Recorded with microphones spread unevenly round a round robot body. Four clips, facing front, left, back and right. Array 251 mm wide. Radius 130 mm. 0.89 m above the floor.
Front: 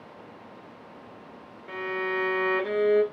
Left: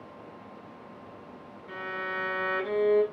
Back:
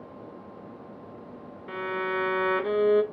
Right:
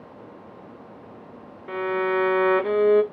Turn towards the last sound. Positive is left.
turn(degrees=-95)